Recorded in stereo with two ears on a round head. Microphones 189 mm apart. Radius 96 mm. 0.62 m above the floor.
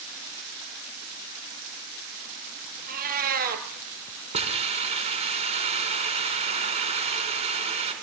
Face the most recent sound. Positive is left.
turn(degrees=-30)  # may be behind; listen again after turning